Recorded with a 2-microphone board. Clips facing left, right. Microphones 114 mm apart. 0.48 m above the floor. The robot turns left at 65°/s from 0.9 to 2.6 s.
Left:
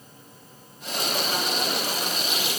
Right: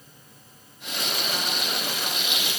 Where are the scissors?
No scissors in this recording.